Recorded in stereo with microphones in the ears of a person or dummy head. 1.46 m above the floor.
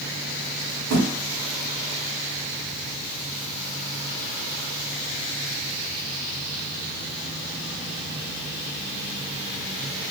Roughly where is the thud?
Centre.